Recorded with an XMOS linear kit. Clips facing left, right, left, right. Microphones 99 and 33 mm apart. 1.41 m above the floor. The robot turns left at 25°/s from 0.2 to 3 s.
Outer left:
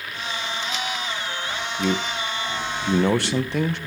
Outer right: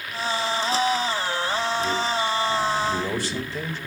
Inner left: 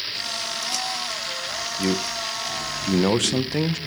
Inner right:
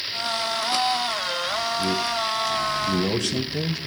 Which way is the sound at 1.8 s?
75° left (ahead or behind).